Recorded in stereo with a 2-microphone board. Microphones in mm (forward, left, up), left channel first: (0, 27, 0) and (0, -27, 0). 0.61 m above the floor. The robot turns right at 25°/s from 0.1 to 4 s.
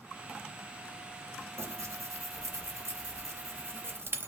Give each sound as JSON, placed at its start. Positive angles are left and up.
{"t": 1.6, "sound": "tearing paper", "side_deg": -55, "distance_m": 0.5}